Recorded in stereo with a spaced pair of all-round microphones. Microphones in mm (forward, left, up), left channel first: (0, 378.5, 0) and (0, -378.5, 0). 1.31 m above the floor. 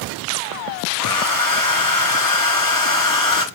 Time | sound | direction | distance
1.0 | a hair dryer | 30° left (ahead or behind) | 0.7 m